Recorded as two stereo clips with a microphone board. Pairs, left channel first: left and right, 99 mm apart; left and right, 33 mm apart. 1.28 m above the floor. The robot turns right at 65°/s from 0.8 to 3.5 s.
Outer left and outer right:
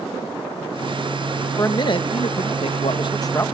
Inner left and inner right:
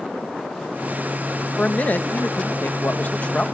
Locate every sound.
1.6 s a man speaking: 30° left; by 3.5 s 155° left